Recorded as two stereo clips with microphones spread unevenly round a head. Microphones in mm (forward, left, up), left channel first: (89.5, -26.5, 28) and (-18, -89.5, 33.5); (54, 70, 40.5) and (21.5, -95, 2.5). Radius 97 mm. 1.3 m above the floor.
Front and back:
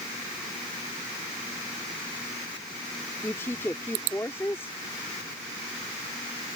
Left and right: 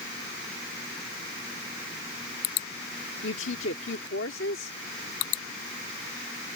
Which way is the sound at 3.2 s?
110° left.